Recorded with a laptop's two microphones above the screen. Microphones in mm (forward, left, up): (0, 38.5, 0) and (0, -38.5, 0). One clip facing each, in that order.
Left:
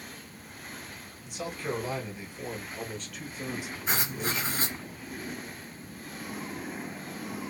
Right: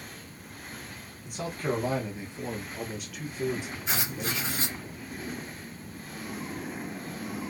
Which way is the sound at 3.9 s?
35° left (ahead or behind).